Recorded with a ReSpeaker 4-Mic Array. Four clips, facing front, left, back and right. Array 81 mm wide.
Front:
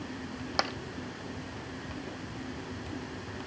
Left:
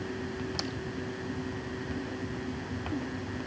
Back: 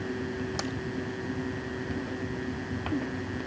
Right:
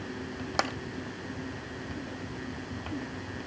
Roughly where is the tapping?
Ahead right.